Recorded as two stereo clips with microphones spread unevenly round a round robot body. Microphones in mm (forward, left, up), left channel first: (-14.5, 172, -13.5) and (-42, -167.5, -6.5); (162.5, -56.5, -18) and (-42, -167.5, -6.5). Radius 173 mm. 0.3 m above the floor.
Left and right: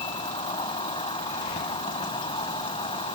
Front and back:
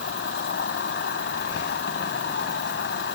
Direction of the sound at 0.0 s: 15° left.